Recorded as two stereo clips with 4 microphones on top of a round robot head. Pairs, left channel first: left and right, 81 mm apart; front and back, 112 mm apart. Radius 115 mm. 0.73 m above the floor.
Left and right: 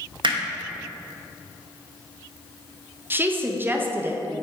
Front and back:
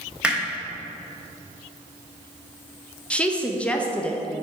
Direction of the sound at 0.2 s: 100° right.